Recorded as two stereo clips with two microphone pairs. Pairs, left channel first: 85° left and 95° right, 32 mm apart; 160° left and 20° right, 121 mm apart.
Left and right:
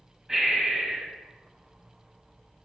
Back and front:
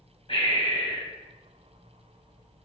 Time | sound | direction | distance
0.3 | breathing | 160° right | 2.5 m